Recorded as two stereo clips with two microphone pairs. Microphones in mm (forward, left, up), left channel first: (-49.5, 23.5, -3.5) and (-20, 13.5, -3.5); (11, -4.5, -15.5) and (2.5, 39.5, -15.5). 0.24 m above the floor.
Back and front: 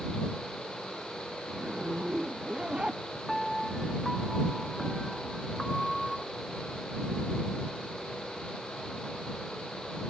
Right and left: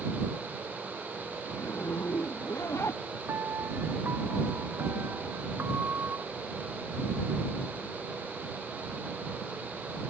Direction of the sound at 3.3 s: 80° left.